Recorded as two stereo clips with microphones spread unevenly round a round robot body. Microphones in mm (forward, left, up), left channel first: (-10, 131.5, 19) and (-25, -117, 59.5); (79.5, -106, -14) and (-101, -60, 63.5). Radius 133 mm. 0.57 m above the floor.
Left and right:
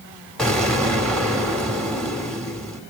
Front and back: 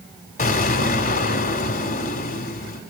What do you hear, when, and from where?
0.4 s an explosion: 5° left, 2 m